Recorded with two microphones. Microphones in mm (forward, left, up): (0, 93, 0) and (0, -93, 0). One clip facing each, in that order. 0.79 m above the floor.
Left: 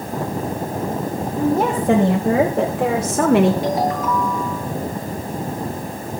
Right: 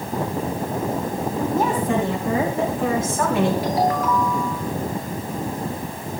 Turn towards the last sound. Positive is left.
turn(degrees=25)  # may be behind; listen again after turning